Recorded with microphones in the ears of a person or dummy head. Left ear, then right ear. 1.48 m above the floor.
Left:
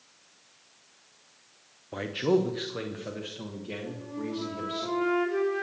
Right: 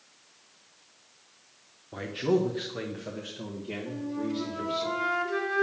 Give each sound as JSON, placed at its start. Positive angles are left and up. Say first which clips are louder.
{"t": 1.9, "sound": "a man speaking", "louder": "left 1 dB", "side_deg": 20, "distance_m": 0.6}
{"t": 3.9, "sound": "a flute", "louder": "right 3 dB", "side_deg": -45, "distance_m": 3.0}